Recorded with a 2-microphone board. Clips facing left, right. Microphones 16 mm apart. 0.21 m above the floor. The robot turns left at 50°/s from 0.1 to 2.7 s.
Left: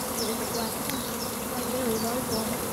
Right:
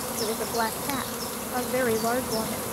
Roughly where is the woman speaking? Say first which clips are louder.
Right 5 dB; ahead right.